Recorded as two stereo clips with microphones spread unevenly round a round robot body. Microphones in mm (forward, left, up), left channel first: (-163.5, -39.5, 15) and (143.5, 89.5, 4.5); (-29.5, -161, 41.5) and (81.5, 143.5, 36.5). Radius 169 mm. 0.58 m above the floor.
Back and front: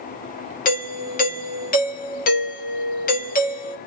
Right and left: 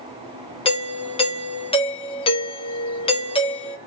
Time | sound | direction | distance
0.7 | a doorbell | 155° right | 1.0 m